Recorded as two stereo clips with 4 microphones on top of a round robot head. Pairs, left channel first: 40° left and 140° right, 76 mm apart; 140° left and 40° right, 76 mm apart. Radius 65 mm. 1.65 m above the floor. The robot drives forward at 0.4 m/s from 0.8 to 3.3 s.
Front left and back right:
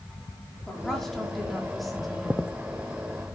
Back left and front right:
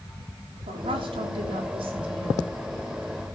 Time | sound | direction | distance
0.7 | a woman speaking | 45° right | 4.5 m